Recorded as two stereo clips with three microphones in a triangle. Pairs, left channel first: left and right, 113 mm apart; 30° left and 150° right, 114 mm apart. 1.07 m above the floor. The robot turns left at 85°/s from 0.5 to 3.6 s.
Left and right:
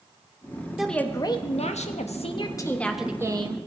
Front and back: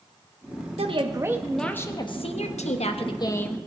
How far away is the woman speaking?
About 1.1 m.